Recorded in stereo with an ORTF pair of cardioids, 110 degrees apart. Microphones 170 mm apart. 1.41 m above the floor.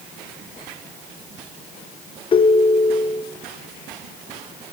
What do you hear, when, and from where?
2.3 s a ringtone: 30° left, 0.9 m